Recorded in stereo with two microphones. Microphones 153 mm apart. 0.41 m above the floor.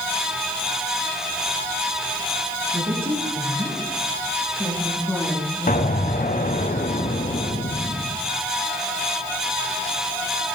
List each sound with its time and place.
2.7 s a woman speaking: 40° right (ahead or behind), 5.5 m; by 6.3 s centre (ahead or behind), 5.5 m
5.7 s an explosion: 65° left (ahead or behind), 1.2 m